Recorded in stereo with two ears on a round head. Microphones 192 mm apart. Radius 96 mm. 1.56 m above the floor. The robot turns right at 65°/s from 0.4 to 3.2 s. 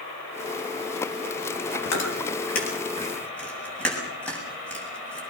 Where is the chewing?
85° left, 8 m; by 5.2 s 5° left (ahead or behind), 8 m.